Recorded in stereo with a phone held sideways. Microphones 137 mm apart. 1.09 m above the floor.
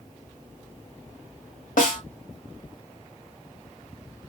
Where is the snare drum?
75° left (ahead or behind), 1.2 m.